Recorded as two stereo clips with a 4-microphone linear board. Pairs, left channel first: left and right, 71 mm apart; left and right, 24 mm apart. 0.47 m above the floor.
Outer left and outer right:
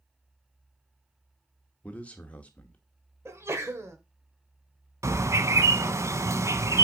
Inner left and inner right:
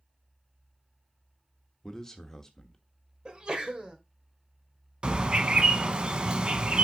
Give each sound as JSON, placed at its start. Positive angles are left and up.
{"t": 1.8, "sound": "a man speaking", "side_deg": 20, "distance_m": 1.1}
{"t": 3.2, "sound": "a sneeze", "side_deg": -40, "distance_m": 1.8}
{"t": 5.0, "sound": "a bird", "side_deg": -40, "distance_m": 0.6}